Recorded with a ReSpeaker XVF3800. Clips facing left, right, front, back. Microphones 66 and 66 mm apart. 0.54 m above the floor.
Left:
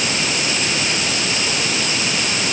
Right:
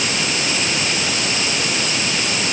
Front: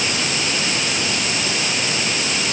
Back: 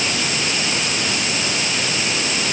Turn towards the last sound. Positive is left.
No sound to turn to.